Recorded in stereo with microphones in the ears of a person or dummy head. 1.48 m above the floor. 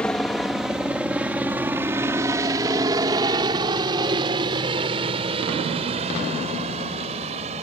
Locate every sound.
0.0 s a helicopter: 10° left (ahead or behind); by 7.6 s 30° right (ahead or behind)